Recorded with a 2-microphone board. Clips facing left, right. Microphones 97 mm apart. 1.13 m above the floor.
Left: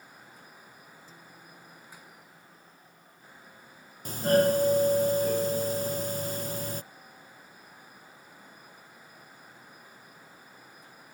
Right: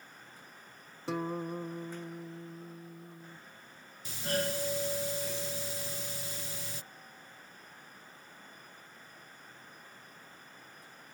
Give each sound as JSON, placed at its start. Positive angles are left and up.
{"t": 1.1, "sound": "a guitar", "side_deg": -75}
{"t": 4.0, "sound": "a doorbell", "side_deg": 45}